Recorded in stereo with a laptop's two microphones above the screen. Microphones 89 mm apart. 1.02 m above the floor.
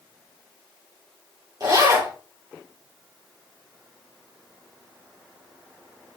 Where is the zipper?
50° right (ahead or behind), 2.5 m.